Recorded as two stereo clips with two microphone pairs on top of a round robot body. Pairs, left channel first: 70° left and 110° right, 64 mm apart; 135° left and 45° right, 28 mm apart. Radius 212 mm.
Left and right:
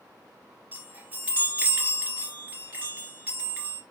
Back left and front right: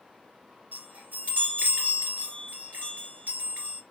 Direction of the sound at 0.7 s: 40° right.